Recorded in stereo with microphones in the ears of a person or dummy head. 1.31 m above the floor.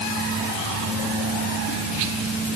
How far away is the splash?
I don't hear a splash.